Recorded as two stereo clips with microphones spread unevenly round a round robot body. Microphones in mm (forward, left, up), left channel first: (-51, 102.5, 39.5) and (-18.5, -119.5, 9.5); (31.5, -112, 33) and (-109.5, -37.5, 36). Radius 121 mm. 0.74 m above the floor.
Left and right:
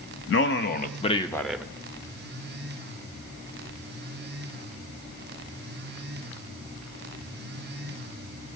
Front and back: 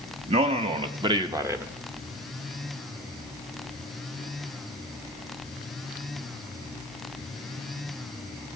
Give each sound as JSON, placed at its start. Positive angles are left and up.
{"t": 0.3, "sound": "a man speaking", "azimuth_deg": 110, "distance_m": 0.8}